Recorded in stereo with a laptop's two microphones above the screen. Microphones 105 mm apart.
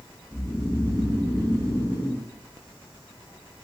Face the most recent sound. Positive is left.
turn(degrees=-45)  # may be behind; listen again after turning